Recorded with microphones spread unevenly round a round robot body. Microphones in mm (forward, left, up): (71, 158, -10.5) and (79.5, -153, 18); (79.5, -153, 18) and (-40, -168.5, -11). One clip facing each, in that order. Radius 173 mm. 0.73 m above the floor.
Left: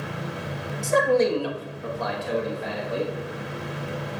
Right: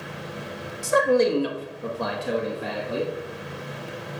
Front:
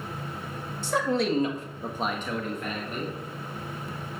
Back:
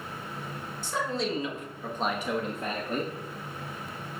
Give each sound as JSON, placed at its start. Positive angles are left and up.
{"t": 0.8, "sound": "a man speaking", "azimuth_deg": -5, "distance_m": 1.6}